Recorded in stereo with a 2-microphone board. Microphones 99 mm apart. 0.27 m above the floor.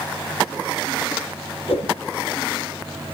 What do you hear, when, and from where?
1.7 s a whoosh: 80° left, 5 m